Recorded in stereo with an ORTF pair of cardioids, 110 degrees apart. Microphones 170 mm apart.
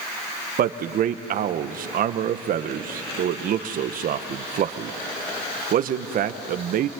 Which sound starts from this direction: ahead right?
A man speaking, at 0.6 s.